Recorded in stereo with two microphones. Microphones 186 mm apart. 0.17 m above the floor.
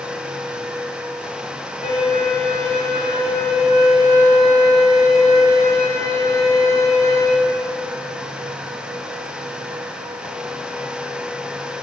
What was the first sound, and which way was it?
A violin, 35° left (ahead or behind).